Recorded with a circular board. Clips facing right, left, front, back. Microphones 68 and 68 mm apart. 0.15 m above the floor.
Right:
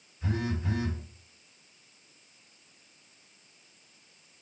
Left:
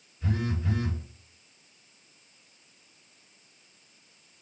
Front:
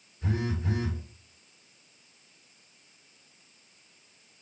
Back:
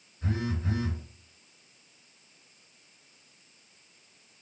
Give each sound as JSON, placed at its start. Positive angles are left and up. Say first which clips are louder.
{"t": 0.2, "sound": "a phone buzzing", "louder": "left 1 dB, front 1 dB", "azimuth_deg": -155, "distance_m": 1.7}